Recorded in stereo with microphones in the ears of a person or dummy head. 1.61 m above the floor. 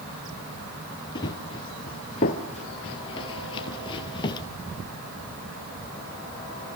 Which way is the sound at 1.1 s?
20° left (ahead or behind).